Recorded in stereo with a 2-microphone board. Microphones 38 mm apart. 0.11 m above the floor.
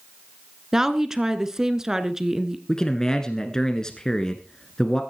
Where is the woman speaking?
15° right (ahead or behind), 1.2 m.